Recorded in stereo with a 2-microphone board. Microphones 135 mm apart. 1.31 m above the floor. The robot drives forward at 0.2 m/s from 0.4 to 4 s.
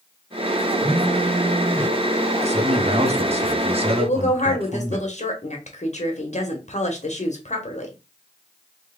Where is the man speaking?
50° right (ahead or behind), 0.7 m; by 5.0 s 45° right (ahead or behind), 0.8 m.